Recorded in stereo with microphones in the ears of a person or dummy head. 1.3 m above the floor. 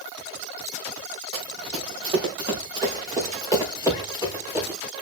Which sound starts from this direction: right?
Running footsteps, at 1.3 s.